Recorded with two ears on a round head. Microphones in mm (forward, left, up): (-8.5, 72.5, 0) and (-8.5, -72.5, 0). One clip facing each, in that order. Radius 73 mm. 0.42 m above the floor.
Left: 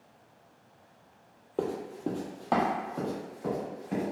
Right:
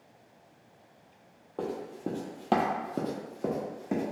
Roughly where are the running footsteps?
Left.